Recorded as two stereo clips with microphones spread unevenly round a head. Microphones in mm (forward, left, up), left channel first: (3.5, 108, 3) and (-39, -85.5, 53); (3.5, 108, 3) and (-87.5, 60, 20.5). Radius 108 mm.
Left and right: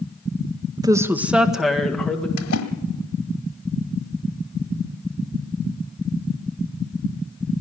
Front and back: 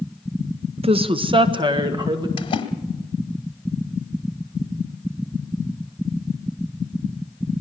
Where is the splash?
55° left, 1.5 m.